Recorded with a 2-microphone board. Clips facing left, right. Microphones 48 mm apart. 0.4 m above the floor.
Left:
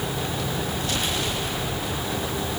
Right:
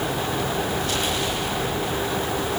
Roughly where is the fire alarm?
I don't hear a fire alarm.